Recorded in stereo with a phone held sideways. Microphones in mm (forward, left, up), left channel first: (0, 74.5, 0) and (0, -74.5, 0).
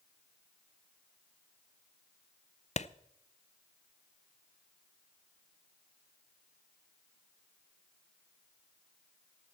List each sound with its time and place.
2.8 s a clap: 50° left (ahead or behind), 0.5 m